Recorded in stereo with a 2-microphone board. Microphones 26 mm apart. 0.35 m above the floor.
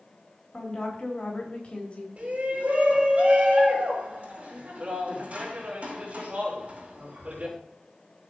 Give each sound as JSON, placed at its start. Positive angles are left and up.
{"t": 0.5, "sound": "a woman speaking", "side_deg": 40, "distance_m": 3.5}
{"t": 2.2, "sound": "a shout", "side_deg": -60, "distance_m": 4.5}